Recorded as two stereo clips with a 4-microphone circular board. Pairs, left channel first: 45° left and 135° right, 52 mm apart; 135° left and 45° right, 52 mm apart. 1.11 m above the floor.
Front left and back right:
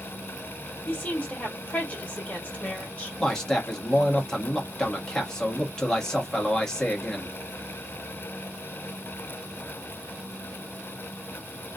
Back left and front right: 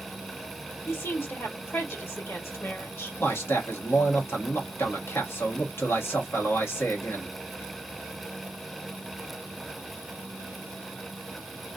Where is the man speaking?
120° left, 1.2 m.